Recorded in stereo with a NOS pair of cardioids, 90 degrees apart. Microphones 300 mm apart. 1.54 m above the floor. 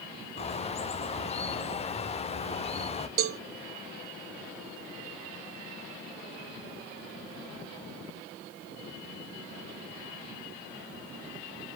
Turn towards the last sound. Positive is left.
turn(degrees=-50)